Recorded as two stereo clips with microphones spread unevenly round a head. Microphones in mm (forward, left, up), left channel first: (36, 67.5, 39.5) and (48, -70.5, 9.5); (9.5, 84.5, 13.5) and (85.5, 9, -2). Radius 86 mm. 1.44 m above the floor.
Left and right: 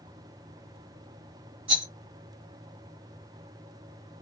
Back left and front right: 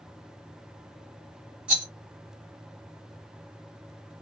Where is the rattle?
135° right, 1.3 m.